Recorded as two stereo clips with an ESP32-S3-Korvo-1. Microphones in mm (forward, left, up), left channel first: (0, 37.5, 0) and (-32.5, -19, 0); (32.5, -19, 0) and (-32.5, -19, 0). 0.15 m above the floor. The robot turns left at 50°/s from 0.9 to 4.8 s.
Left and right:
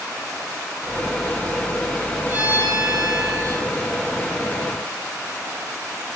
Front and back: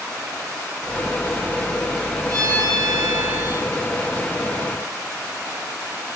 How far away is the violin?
About 4.5 m.